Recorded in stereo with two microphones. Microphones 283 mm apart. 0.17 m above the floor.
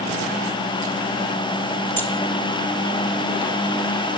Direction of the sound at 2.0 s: 5° left (ahead or behind).